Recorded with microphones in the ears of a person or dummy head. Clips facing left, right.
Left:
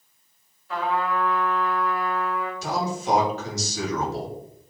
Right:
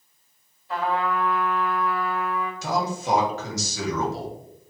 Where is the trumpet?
20° right (ahead or behind), 1.8 m.